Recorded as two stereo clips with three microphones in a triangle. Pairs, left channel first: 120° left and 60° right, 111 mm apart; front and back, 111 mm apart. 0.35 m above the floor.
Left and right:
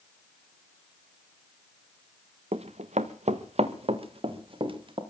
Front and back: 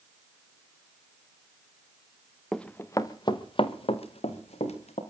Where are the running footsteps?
85° right, 1.4 m; by 5.0 s 15° right, 4 m.